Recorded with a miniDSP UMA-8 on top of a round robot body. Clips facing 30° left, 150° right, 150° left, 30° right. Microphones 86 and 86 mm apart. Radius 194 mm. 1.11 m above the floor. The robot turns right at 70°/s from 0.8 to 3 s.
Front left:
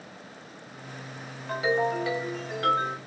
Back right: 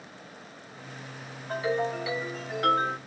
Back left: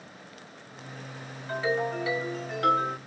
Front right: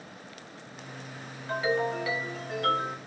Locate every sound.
1.5 s a ringtone: 45° left, 1.8 m; by 3.0 s 150° left, 1.8 m